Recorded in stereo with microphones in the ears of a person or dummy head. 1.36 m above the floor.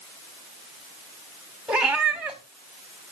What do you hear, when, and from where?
1.7 s a cat meowing: 5° right (ahead or behind), 1.5 m